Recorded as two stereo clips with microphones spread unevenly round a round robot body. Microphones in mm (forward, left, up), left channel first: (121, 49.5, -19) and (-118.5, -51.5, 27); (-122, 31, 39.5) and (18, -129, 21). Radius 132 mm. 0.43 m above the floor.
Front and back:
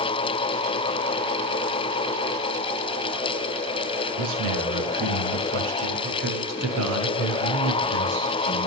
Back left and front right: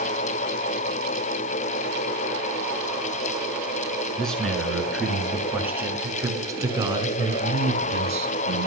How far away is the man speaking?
About 6.5 m.